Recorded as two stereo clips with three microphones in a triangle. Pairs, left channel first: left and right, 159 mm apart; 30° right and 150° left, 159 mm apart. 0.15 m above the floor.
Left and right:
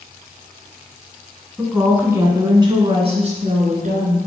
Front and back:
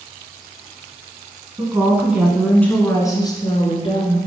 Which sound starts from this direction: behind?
A woman speaking, at 1.6 s.